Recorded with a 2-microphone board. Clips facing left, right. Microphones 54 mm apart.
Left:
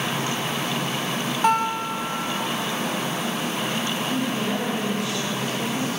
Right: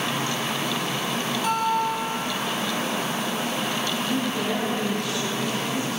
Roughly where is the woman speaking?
Centre.